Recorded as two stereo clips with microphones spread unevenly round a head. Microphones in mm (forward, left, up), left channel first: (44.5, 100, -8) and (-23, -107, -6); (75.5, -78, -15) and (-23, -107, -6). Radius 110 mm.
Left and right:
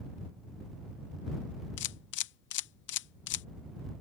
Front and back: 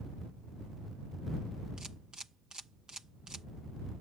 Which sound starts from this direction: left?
A camera shutter, at 1.8 s.